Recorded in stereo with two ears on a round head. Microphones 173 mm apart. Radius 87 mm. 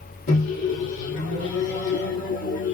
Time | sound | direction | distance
0.3 | a microwave | 65° left (ahead or behind) | 1.6 m